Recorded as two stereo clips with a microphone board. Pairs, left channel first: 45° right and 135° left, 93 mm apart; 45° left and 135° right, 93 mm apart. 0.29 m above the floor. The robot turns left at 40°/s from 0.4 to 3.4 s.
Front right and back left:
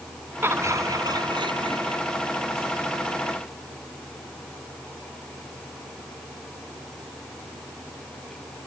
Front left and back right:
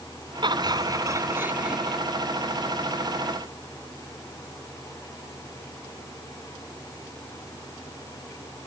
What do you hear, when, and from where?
0.4 s laughter: 160° right; by 2.0 s 135° left